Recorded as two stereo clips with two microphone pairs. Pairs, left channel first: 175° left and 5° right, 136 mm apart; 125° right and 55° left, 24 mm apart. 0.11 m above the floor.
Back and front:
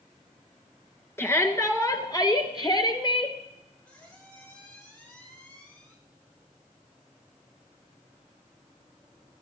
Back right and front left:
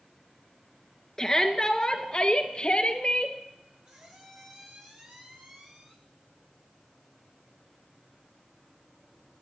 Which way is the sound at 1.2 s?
145° right.